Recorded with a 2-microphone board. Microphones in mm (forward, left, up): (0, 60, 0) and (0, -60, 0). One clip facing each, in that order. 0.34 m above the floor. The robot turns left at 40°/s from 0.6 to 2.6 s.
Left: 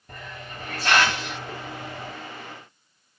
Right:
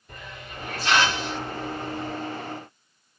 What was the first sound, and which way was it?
A hiss, 45° left (ahead or behind).